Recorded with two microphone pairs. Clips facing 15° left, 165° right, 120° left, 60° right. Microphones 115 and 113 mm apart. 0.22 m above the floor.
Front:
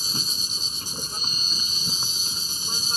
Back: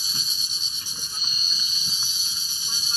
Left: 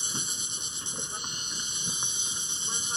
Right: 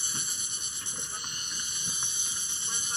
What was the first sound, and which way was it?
An insect, 55° left.